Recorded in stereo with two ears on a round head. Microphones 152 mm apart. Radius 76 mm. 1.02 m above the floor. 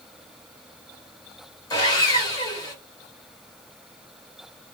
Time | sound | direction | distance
1.7 | sawing | 25° left (ahead or behind) | 1.1 m